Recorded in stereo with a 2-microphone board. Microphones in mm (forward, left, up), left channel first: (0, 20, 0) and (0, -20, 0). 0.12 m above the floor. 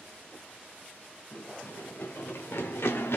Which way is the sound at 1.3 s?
70° left (ahead or behind).